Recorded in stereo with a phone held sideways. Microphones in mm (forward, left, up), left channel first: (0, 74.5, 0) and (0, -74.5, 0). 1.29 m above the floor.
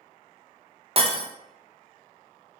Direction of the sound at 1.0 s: 40° right (ahead or behind).